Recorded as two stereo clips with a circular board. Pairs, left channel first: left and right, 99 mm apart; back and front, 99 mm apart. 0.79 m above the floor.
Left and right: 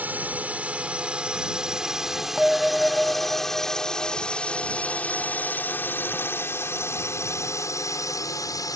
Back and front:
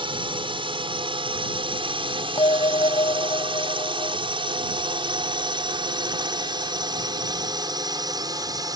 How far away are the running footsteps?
I don't hear running footsteps.